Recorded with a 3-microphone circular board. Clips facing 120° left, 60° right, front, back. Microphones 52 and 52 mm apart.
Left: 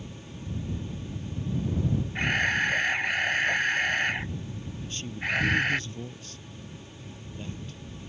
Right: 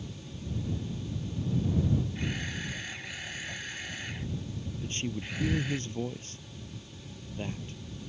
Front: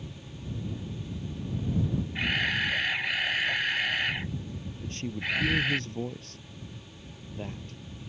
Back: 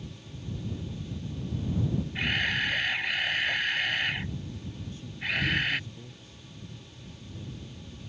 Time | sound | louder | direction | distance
2.1 | a camera shutter | left 11 dB, front 1 dB | 90° left | ?
4.8 | a man speaking | left 2 dB, front 3 dB | 5° right | ?